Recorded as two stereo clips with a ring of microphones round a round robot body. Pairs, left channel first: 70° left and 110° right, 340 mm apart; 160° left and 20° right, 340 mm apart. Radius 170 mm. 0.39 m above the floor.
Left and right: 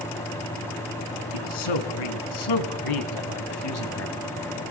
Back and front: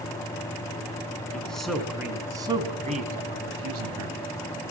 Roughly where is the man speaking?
Left.